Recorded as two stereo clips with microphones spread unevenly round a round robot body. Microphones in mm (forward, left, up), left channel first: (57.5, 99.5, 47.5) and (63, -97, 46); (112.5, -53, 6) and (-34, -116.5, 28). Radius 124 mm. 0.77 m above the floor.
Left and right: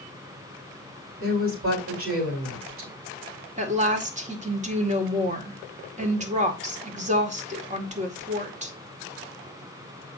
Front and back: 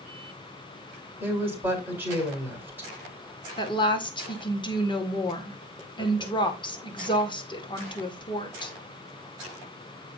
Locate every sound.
1.2 s a woman speaking: 80° right, 4.5 m
3.6 s a woman speaking: 35° right, 2 m